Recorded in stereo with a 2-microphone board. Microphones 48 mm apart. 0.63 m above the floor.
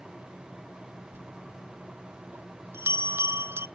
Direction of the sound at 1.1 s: 50° right (ahead or behind).